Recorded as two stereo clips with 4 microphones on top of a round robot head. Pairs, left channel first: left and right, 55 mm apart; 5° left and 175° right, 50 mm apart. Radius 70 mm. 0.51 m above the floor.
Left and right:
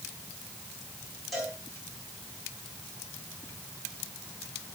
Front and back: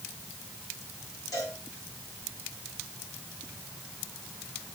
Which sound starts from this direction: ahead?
A cowbell, at 1.3 s.